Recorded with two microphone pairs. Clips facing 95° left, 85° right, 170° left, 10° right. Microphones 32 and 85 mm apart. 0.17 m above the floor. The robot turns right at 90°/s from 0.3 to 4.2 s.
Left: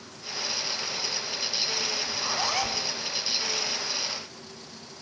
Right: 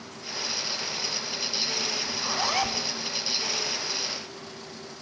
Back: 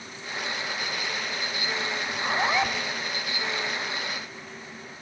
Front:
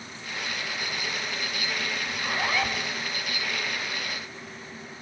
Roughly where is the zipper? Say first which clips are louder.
Right 1 dB, back 4 dB; behind left.